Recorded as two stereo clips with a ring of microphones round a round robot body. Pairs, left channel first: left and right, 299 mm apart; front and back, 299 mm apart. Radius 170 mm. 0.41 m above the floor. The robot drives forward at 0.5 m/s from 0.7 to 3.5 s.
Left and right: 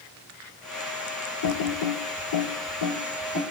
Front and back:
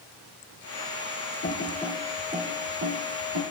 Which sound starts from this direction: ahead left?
Typing on a keyboard, at 1.4 s.